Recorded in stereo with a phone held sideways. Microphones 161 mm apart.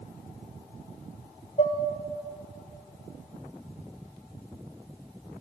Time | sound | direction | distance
1.6 | dishes clattering | 50° left (ahead or behind) | 0.9 m